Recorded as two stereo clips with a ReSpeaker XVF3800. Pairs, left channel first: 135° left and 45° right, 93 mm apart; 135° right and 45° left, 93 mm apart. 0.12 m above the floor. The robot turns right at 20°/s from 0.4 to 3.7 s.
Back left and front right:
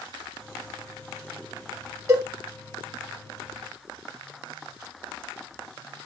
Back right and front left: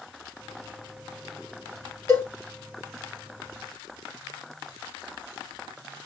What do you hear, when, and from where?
2.1 s a cowbell: 85° right, 2 m; by 2.3 s 80° right, 2 m